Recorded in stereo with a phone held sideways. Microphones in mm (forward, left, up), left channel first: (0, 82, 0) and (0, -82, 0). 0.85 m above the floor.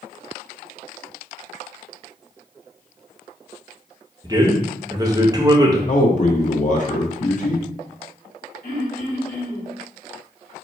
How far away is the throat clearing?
About 2.5 m.